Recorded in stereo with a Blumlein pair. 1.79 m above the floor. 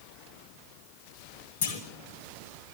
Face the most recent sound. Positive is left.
turn(degrees=60)